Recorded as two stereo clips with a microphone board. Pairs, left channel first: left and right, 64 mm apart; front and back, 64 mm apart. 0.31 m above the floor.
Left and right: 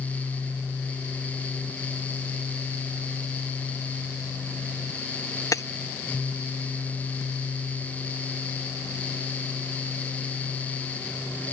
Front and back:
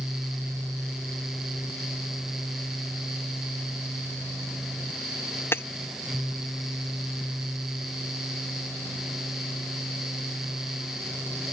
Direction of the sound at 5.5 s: 55° left.